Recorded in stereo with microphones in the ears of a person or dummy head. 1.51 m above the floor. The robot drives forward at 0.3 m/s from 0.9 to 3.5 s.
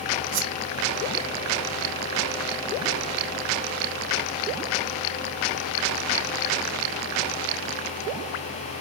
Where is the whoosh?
75° right (ahead or behind).